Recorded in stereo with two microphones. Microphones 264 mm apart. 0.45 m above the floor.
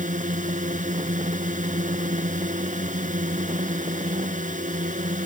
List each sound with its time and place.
0.0 s a drone: 30° right (ahead or behind)